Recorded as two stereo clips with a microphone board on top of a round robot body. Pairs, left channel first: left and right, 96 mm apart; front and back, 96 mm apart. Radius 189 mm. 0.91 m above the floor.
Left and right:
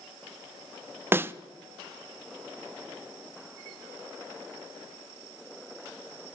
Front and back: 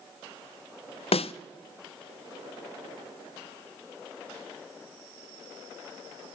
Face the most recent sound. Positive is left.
turn(degrees=-20)